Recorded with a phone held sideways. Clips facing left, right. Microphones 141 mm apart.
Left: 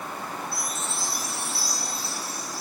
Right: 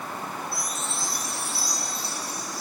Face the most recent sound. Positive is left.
turn(degrees=0)  # may be behind; listen again after turning